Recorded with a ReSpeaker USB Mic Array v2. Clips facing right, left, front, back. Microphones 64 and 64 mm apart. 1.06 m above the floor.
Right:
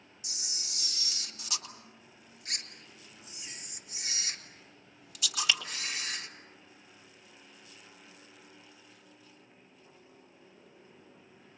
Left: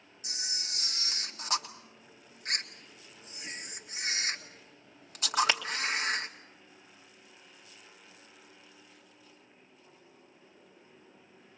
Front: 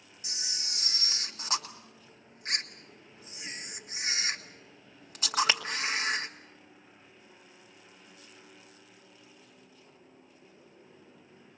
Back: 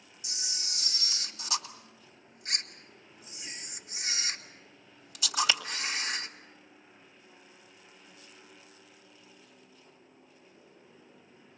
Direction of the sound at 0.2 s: 45° left.